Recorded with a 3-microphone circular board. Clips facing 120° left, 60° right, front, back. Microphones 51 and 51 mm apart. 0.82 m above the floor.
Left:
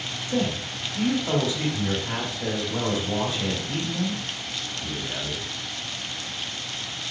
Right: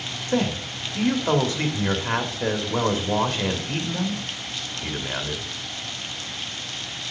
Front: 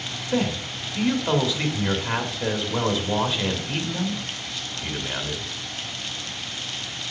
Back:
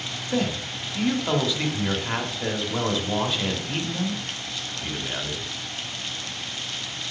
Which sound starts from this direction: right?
A man speaking, at 0.3 s.